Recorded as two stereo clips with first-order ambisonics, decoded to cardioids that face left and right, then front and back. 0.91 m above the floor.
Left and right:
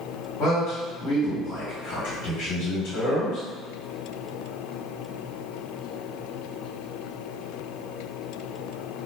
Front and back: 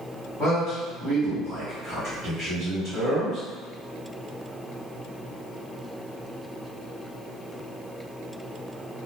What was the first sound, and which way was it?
A man speaking, 65° left.